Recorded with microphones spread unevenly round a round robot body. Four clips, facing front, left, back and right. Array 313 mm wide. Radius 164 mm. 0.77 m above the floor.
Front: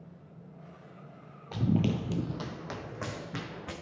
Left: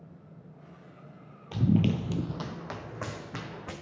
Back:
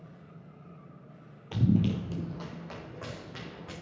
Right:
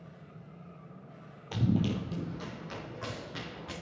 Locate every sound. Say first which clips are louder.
1.5 s running footsteps: left 4 dB, back 1 dB; 175° left, 0.8 m; by 3.7 s 35° left, 3 m